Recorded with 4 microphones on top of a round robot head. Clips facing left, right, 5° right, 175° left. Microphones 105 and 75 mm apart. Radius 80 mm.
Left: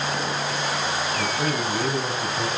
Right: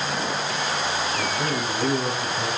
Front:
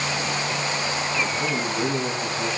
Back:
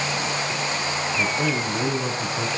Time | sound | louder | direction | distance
1.2 | a man speaking | left 1 dB, back 3 dB | 165° left | 8.5 m